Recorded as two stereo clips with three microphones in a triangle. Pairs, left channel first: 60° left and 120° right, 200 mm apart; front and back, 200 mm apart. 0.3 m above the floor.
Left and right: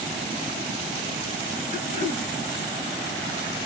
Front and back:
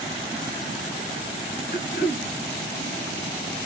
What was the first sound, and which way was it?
Throat clearing, 20° left.